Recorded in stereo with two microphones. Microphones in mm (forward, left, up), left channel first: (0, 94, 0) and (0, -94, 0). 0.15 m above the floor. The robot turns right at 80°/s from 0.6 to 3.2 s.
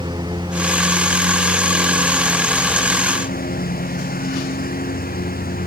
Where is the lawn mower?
155° right; by 5.7 s 50° left.